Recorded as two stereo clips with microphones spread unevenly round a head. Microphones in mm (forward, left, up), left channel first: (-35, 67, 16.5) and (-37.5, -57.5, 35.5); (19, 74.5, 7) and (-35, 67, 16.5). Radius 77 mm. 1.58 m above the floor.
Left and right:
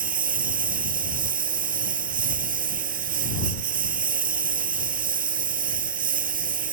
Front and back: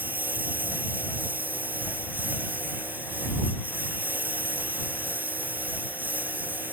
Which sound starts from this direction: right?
A lawn mower, at 0.0 s.